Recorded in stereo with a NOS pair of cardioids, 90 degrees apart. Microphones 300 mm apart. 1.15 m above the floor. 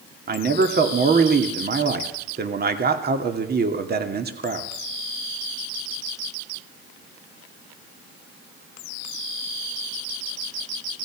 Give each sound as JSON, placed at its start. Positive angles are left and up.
{"t": 0.3, "sound": "a man speaking", "azimuth_deg": -35, "distance_m": 2.5}